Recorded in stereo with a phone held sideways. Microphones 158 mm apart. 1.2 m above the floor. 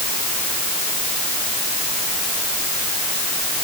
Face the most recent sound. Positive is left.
No sound to turn to.